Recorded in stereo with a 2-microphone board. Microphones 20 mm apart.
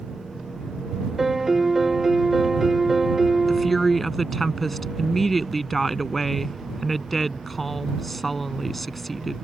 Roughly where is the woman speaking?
Centre.